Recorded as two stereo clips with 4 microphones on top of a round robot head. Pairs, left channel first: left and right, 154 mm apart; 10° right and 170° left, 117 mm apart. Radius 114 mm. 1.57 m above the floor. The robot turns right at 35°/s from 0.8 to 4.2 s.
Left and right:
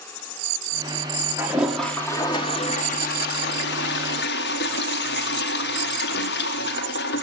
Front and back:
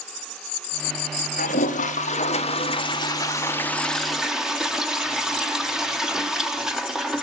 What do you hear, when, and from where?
1.4 s a toilet flushing: 10° right, 1.2 m; by 7.2 s 85° left, 1.2 m